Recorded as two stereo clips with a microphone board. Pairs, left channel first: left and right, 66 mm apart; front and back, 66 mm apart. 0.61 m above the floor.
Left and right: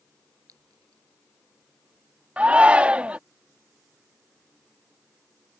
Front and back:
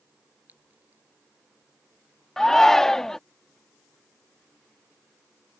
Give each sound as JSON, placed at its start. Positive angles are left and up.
{"t": 0.5, "sound": "a clink", "azimuth_deg": -120}
{"t": 2.4, "sound": "a shout", "azimuth_deg": -70}